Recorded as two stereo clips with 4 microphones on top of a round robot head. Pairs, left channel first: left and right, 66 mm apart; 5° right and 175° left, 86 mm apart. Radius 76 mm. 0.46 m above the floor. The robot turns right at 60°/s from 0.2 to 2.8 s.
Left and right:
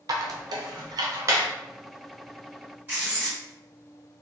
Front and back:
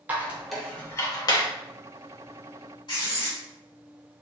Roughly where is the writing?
Ahead right.